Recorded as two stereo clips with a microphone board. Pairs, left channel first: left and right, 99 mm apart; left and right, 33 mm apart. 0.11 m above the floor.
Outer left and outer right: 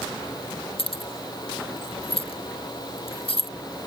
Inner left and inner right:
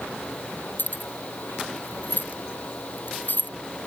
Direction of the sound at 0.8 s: 70° left (ahead or behind).